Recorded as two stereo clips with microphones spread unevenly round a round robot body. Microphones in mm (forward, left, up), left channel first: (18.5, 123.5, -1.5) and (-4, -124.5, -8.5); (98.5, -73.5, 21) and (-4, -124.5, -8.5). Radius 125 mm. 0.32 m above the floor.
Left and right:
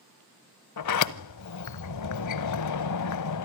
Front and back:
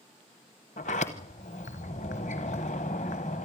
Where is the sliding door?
80° left, 0.9 m.